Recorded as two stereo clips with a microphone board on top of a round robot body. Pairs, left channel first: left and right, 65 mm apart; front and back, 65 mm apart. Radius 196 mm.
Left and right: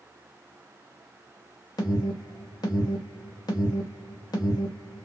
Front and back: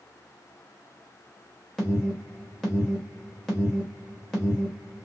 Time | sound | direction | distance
1.8 | an alarm | 80° left | 1.3 m